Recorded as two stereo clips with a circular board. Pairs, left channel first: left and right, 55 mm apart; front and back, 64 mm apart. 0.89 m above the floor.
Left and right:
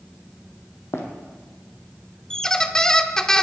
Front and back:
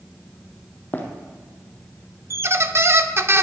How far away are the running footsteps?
About 2 m.